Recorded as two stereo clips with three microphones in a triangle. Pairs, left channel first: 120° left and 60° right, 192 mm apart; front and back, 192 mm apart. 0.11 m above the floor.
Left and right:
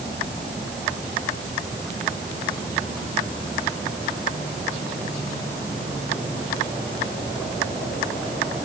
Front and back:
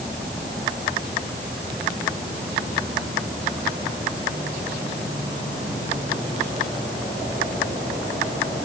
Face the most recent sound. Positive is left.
No sound to turn to.